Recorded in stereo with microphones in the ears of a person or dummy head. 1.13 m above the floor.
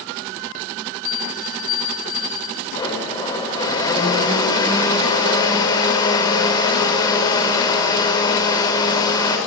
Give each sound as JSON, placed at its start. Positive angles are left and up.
{"t": 1.1, "sound": "a bell", "side_deg": 50, "distance_m": 3.5}
{"t": 2.8, "sound": "a blender", "side_deg": 20, "distance_m": 5.5}